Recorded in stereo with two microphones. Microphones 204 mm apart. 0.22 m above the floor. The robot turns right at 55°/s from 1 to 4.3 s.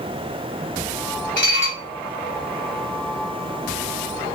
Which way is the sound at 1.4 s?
60° left (ahead or behind).